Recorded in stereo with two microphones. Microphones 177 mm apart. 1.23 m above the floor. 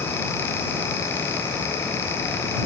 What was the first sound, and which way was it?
Only background noise.